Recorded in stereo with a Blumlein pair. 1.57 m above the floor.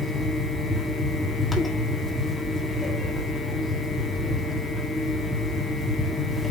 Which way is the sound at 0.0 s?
5° left.